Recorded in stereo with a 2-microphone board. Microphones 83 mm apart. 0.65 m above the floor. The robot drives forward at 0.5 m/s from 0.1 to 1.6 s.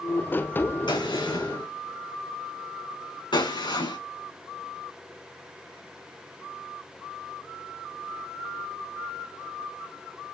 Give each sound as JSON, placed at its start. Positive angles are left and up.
{"t": 0.9, "sound": "a gunshot", "side_deg": 70, "distance_m": 4.0}